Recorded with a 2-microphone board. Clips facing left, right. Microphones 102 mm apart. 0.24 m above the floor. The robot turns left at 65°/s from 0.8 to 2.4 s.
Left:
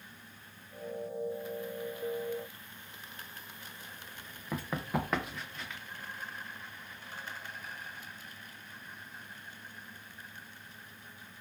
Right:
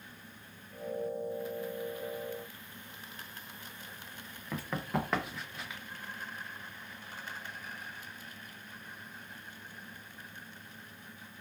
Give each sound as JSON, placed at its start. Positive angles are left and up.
{"t": 4.5, "sound": "running footsteps", "side_deg": 15, "distance_m": 1.0}